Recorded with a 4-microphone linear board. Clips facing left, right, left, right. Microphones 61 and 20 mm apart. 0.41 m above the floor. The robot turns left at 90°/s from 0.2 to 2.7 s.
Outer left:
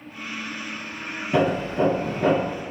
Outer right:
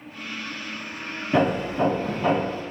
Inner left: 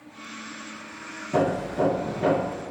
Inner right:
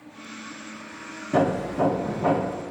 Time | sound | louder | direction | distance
1.3 | hammering | even, inner right 1 dB | 170° right | 1.5 m